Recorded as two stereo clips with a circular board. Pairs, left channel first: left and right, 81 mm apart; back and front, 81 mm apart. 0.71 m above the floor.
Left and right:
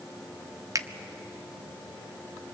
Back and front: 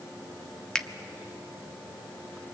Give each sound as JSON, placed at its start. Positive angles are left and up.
{"t": 0.8, "sound": "a finger snap", "azimuth_deg": -100, "distance_m": 0.7}